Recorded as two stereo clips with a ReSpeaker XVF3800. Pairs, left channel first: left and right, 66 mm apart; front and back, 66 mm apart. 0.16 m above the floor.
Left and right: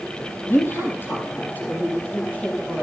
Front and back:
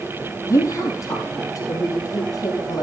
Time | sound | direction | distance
0.5 | a woman speaking | 40° left | 3 m